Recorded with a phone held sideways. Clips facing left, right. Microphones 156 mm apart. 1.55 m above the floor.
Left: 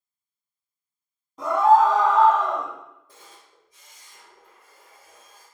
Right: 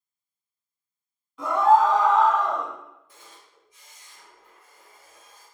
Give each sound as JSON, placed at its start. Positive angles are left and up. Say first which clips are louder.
{"t": 1.4, "sound": "a scream", "louder": "left 2 dB", "side_deg": 40, "distance_m": 1.2}
{"t": 3.1, "sound": "a camera shutter", "louder": "left 1 dB", "side_deg": 40, "distance_m": 1.3}